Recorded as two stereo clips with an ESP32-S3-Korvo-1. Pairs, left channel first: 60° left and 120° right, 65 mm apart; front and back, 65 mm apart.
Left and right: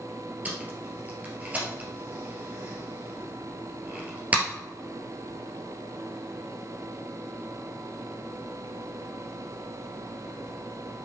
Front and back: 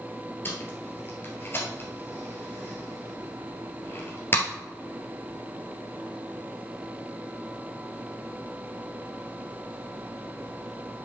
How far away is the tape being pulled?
About 1.9 m.